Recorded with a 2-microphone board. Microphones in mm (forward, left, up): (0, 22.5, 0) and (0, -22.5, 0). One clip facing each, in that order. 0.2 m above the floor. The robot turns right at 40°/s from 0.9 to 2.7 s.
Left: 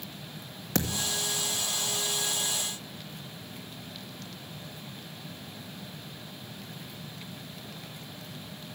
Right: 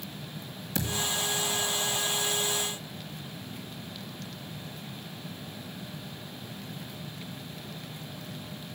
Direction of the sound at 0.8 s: 70° left (ahead or behind).